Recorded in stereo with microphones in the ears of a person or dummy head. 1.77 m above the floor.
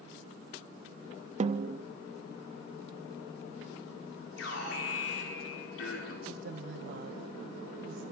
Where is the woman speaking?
65° right (ahead or behind), 1.8 m.